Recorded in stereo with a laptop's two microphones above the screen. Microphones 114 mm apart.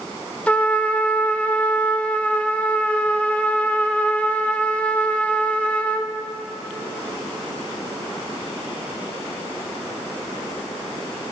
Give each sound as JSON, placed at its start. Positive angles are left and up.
{"t": 0.5, "sound": "a trumpet", "side_deg": 10, "distance_m": 0.8}